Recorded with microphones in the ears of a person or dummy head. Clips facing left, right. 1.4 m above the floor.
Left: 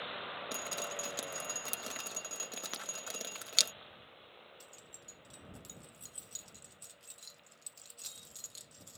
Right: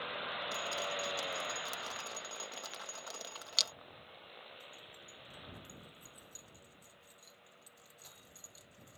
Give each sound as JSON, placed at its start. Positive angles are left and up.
{"t": 0.5, "sound": "dripping", "side_deg": 30}
{"t": 2.7, "sound": "breaking glass", "side_deg": 70}
{"t": 4.6, "sound": "keys jangling", "side_deg": 35}